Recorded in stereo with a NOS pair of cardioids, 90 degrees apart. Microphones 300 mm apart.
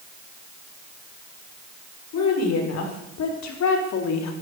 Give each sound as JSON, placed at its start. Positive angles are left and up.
{"t": 2.1, "sound": "a woman speaking", "azimuth_deg": 65, "distance_m": 6.0}